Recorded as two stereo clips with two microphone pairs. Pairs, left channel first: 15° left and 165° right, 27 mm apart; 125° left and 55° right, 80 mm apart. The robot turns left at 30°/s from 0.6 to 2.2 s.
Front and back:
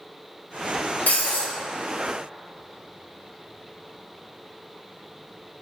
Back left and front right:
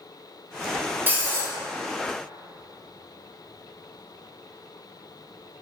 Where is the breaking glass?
5° left, 1.2 m; by 1.5 s 5° right, 1.2 m.